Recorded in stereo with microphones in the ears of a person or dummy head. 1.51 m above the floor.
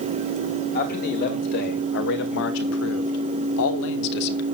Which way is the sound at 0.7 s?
50° left (ahead or behind).